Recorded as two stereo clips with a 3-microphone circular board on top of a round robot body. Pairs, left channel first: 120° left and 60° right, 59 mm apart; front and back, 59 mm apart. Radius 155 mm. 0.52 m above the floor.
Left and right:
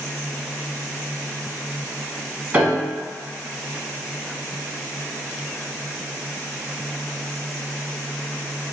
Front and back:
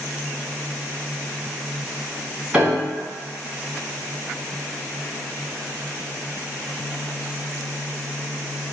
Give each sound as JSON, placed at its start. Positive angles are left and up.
{"t": 2.5, "sound": "a piano", "azimuth_deg": -115, "distance_m": 1.2}